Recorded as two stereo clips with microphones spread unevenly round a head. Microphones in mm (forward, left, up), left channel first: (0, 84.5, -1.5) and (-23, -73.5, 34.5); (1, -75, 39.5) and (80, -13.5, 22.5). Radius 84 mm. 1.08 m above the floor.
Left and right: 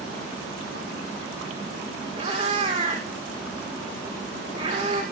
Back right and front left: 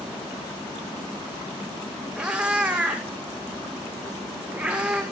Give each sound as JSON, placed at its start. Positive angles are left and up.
{"t": 2.2, "sound": "a cat meowing", "azimuth_deg": -45, "distance_m": 8.5}